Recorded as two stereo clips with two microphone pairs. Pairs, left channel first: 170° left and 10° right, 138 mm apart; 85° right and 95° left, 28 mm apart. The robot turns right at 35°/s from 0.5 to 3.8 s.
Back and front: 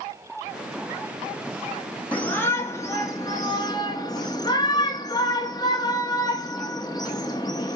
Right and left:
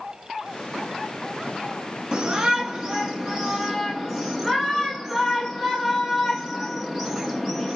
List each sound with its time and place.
2.1 s a shout: 105° left, 0.6 m; by 7.8 s 165° left, 0.6 m